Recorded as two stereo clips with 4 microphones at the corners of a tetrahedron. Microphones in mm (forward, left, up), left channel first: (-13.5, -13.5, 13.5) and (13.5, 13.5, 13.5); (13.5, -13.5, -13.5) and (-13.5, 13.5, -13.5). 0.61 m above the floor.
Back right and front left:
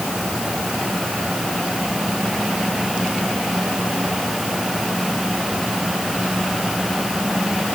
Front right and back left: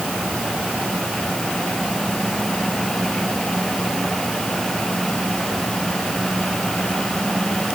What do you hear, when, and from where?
Only background noise.